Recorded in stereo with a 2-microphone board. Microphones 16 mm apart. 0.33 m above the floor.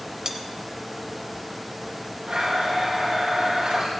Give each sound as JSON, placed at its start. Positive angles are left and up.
{"t": 0.2, "sound": "cutlery clinking", "side_deg": -35, "distance_m": 0.9}
{"t": 2.3, "sound": "a blender", "side_deg": -75, "distance_m": 6.5}